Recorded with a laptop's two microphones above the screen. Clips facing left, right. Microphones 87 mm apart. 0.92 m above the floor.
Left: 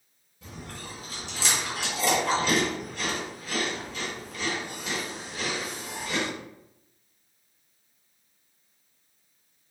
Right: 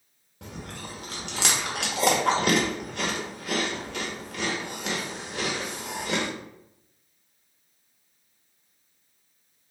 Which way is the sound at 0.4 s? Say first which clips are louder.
Right 2 dB; 70° right (ahead or behind).